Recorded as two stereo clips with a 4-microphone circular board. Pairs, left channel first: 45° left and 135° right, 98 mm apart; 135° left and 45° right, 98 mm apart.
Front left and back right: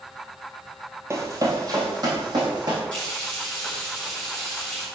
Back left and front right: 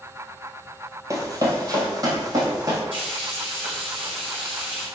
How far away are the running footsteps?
About 1.2 m.